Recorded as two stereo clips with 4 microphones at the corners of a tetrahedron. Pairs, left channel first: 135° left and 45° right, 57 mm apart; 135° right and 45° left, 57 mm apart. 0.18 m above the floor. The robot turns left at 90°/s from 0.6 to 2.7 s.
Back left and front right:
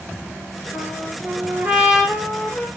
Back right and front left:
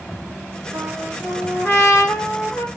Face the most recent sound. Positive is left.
turn(degrees=170)